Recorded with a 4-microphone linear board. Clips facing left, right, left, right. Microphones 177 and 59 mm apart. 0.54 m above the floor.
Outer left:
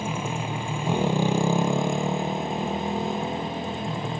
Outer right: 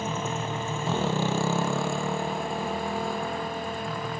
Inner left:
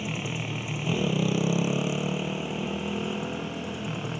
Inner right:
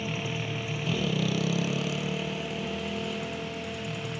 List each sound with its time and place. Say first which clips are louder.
0.0 s a motorcycle: outer left 1 dB, even; 10° left (ahead or behind); by 4.2 s 25° left (ahead or behind)